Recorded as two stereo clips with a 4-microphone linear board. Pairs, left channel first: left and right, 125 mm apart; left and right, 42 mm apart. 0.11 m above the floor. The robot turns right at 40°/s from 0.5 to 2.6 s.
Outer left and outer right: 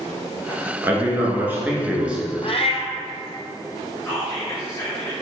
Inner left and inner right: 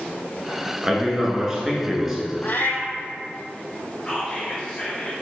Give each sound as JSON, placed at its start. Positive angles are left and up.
{"t": 0.8, "sound": "a man speaking", "side_deg": -20, "distance_m": 1.1}
{"t": 2.4, "sound": "a cat meowing", "side_deg": 50, "distance_m": 0.5}
{"t": 4.0, "sound": "whispering", "side_deg": 20, "distance_m": 1.8}